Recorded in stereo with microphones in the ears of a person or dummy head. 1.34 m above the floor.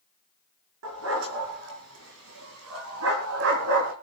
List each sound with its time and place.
0.8 s a dog barking: 75° right (ahead or behind), 6 m; by 3.9 s 70° right (ahead or behind), 4 m